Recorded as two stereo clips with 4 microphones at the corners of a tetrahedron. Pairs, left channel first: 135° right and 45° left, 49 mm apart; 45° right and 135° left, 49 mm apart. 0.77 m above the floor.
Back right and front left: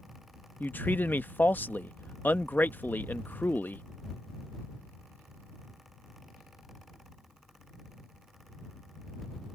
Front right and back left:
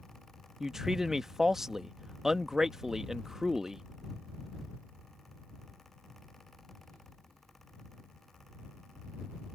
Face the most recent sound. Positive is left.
turn(degrees=-145)